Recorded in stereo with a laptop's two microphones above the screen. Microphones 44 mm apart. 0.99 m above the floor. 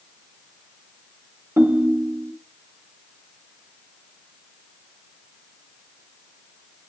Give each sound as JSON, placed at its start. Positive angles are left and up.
{"t": 1.6, "sound": "a ringtone", "side_deg": -75, "distance_m": 1.0}